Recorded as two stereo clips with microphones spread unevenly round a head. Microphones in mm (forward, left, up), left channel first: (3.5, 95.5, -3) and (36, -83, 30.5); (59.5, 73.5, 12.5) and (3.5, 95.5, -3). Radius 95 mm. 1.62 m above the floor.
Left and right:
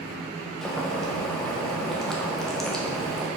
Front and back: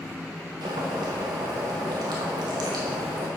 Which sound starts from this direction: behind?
Boiling, at 0.6 s.